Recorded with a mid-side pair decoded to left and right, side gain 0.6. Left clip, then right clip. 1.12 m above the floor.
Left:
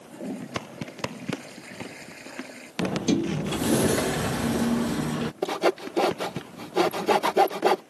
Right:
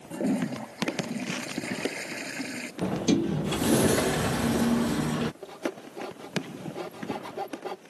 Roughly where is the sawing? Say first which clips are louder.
Left 11 dB; ahead left.